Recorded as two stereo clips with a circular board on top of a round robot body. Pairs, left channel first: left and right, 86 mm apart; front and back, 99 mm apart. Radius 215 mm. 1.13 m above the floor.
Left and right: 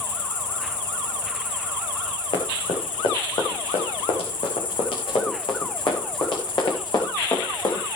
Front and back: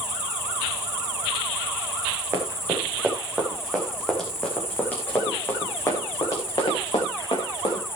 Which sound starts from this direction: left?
An insect, at 0.0 s.